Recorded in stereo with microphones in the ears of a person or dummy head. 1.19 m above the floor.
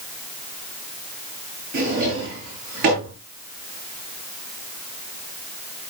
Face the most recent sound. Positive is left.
turn(degrees=-50)  # may be behind; listen again after turning